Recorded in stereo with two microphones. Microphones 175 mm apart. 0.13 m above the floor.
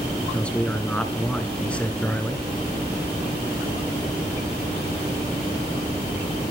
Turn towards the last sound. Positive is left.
turn(degrees=5)  # may be behind; listen again after turning